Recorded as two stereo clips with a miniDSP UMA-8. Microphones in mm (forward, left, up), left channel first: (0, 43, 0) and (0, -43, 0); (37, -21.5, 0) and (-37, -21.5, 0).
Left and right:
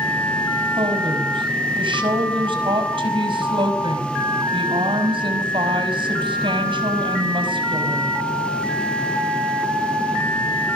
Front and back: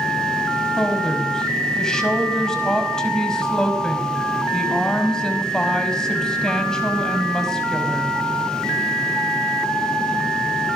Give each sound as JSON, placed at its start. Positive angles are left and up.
{"t": 0.8, "sound": "a woman speaking", "azimuth_deg": -80, "distance_m": 5.0}